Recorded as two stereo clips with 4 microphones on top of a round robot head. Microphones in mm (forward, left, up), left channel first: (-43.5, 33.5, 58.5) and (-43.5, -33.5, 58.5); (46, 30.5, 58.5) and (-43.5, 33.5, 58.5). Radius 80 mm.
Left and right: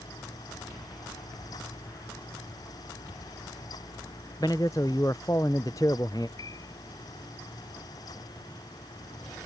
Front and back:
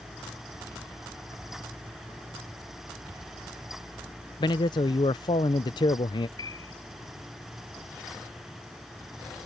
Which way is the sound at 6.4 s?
45° left.